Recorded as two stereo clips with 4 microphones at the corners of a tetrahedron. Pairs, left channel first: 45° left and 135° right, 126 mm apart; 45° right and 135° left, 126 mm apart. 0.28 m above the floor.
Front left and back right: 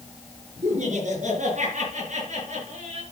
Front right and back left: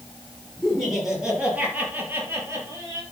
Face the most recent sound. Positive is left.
turn(degrees=-160)